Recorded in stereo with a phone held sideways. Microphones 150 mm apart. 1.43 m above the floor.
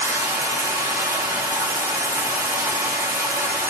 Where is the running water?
15° right (ahead or behind), 0.8 m.